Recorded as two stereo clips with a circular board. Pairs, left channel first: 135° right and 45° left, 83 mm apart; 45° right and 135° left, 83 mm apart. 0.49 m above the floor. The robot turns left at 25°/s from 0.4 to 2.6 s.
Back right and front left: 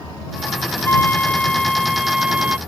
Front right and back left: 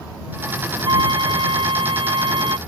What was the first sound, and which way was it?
A flute, 160° left.